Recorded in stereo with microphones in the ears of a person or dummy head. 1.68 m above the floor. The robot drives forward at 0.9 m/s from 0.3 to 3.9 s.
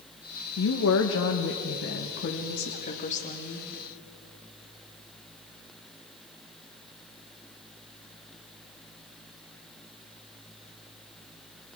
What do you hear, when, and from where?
0.6 s a woman speaking: 75° left (ahead or behind), 1.5 m; by 3.7 s 30° left (ahead or behind), 3 m